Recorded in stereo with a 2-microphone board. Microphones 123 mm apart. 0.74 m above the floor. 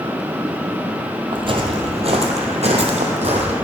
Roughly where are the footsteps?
Right.